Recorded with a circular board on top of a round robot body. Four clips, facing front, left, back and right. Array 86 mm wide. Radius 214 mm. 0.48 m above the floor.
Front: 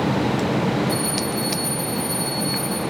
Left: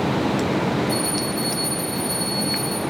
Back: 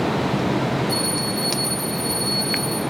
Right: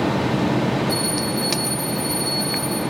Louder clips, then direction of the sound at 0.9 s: Right 1 dB, front 1 dB; 115° right.